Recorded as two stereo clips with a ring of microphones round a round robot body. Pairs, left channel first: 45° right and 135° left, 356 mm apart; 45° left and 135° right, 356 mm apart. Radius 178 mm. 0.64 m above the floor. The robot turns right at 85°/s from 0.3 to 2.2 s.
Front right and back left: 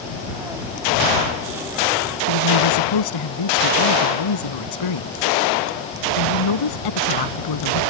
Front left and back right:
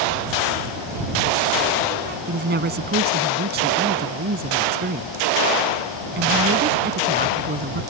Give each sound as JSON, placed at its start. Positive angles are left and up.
{"t": 2.3, "sound": "a woman speaking", "azimuth_deg": -70}